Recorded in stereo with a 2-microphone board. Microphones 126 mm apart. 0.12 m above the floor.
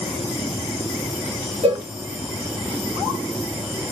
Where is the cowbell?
45° right (ahead or behind), 0.6 m.